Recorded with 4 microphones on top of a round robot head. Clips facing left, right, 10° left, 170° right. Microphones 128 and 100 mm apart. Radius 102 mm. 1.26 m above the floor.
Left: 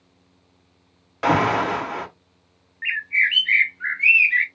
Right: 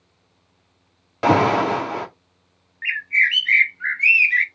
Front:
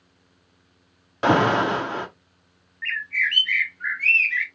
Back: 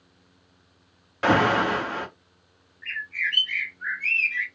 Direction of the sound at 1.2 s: 45° right.